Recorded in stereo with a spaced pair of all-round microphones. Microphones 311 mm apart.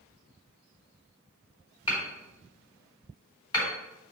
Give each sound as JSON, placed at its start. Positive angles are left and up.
{"t": 1.9, "sound": "hammering", "side_deg": 15, "distance_m": 3.0}